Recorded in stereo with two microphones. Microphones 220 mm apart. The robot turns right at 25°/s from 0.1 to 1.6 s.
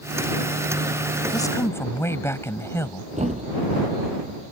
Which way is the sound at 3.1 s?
30° right (ahead or behind).